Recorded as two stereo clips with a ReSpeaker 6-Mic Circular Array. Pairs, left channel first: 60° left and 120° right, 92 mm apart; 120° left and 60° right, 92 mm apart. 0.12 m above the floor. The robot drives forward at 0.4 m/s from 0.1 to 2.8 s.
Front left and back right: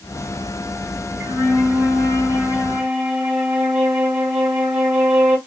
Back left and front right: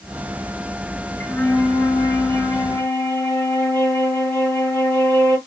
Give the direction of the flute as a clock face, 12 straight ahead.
6 o'clock.